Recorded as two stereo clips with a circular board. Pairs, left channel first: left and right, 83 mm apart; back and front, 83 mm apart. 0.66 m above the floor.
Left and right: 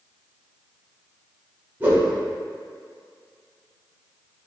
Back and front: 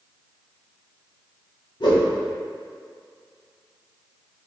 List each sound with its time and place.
1.8 s a whoosh: 160° right, 1.0 m